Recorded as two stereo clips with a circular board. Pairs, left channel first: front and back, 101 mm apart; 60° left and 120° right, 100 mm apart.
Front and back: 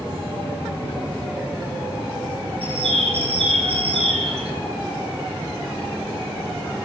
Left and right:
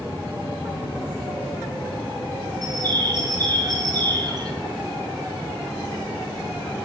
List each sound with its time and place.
2.6 s a bird: 165° right, 2 m